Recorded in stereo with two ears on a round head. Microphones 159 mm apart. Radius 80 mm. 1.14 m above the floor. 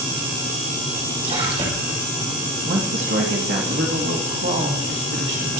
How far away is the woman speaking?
About 2.5 m.